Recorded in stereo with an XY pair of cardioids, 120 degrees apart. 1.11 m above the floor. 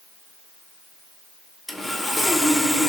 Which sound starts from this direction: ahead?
Sawing, at 1.7 s.